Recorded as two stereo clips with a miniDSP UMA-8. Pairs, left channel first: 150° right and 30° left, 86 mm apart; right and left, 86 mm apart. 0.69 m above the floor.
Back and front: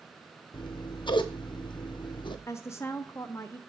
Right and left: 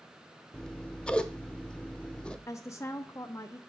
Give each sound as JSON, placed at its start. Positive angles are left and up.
{"t": 0.5, "sound": "scissors", "azimuth_deg": -170, "distance_m": 0.6}
{"t": 2.5, "sound": "a woman speaking", "azimuth_deg": -115, "distance_m": 0.6}